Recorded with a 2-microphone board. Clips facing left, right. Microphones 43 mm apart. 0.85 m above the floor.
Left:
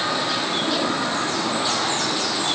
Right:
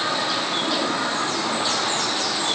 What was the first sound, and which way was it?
Only background noise.